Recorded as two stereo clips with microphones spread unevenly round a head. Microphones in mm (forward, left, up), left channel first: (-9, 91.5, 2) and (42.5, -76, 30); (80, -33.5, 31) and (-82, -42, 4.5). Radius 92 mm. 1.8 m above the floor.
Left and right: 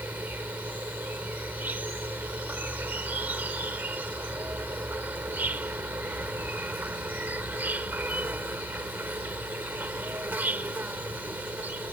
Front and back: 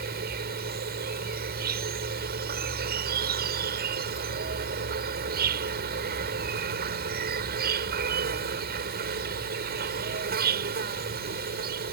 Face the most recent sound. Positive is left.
turn(degrees=-150)